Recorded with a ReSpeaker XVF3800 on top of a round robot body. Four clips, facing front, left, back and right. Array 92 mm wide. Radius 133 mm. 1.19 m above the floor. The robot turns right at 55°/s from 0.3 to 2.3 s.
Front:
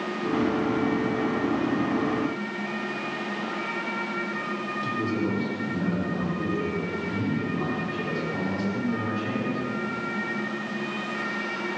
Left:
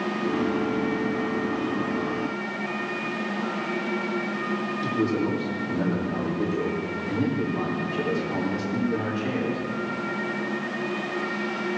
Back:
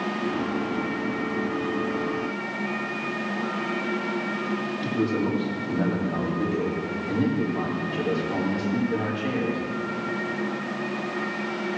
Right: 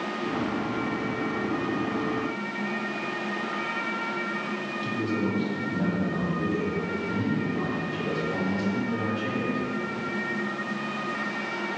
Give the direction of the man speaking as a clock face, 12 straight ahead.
7 o'clock.